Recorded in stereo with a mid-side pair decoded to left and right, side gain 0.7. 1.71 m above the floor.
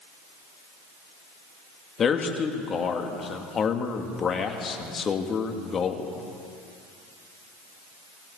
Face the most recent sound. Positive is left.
turn(degrees=35)